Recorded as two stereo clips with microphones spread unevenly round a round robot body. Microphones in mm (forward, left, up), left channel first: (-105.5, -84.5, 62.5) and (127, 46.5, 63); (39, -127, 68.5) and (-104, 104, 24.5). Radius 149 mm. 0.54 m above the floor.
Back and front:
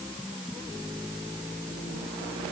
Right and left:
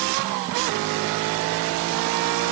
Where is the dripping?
No dripping in this recording.